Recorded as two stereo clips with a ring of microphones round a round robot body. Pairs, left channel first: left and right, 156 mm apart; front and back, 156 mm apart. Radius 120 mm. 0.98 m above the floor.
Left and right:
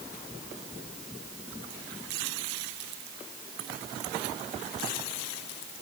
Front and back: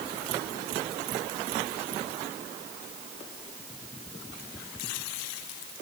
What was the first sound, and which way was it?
Only background noise.